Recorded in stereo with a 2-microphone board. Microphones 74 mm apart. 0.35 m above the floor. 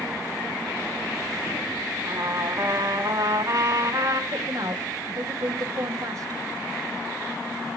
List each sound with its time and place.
2.0 s a trumpet: 50° right (ahead or behind), 2.5 m
4.3 s a woman speaking: 55° right (ahead or behind), 1.8 m